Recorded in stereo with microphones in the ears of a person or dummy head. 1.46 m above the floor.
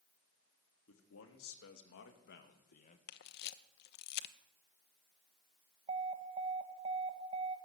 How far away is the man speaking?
About 3.5 m.